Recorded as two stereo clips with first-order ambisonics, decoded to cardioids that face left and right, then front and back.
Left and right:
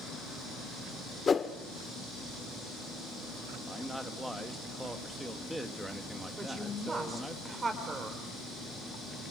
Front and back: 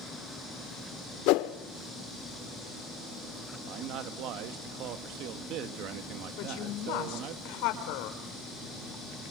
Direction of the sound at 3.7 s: 175° right.